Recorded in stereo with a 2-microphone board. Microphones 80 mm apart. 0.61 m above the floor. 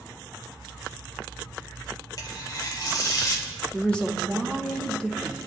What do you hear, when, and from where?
2.2 s tearing paper: 45° left (ahead or behind), 1.7 m
3.7 s a woman speaking: 15° left (ahead or behind), 1.1 m